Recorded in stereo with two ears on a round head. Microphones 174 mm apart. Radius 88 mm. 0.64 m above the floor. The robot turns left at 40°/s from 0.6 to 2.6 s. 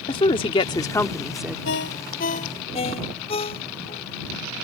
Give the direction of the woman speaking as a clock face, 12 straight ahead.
11 o'clock.